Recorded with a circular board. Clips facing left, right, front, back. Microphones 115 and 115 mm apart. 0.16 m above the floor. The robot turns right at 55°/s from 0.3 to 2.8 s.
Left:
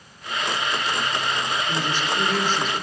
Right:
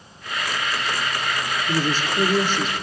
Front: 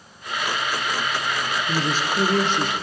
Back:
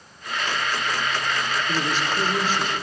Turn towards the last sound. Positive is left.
turn(degrees=5)